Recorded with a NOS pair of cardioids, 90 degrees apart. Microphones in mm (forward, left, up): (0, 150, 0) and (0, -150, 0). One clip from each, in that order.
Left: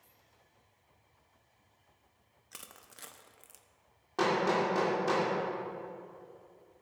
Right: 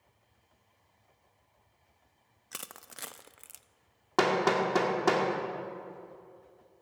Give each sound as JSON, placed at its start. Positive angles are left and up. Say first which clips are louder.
{"t": 2.5, "sound": "crushing", "louder": "right 7 dB", "azimuth_deg": -35, "distance_m": 0.5}
{"t": 4.2, "sound": "hammering", "louder": "right 3 dB", "azimuth_deg": -70, "distance_m": 2.5}